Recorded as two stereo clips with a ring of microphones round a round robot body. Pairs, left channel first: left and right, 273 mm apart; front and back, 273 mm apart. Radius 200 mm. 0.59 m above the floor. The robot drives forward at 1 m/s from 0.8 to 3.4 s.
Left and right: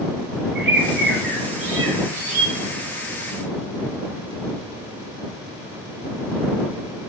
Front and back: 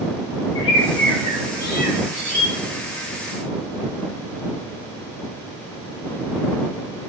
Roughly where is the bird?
Ahead right.